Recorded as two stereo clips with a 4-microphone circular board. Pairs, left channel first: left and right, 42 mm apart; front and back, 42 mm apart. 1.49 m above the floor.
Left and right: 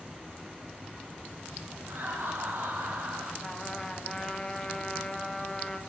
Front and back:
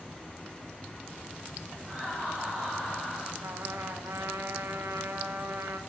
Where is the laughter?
115° right, 3.5 m; by 3.3 s 120° right, 4.5 m.